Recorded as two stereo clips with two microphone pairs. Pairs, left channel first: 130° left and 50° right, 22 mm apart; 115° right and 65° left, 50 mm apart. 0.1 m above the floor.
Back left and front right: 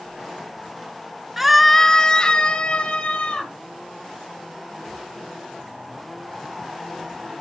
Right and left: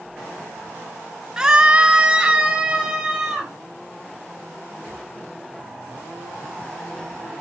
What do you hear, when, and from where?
1.4 s a scream: 10° left, 1.2 m; by 3.5 s 140° left, 3 m